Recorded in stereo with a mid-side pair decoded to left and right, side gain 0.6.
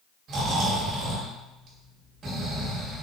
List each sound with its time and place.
0.3 s snoring: 55° right, 1.5 m